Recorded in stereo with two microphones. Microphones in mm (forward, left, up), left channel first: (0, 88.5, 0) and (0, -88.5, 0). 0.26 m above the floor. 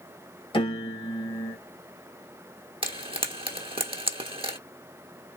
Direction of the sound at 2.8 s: 30° right (ahead or behind).